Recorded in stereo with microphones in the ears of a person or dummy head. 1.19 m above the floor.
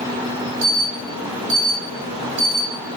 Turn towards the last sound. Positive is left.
turn(degrees=-50)  # may be behind; listen again after turning